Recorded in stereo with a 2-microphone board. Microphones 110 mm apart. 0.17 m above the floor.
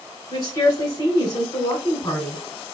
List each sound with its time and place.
0.3 s a woman speaking: 35° left (ahead or behind), 1.5 m